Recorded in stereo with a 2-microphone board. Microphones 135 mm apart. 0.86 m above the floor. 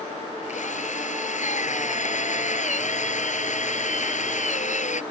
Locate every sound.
0.5 s a drill: 65° left (ahead or behind)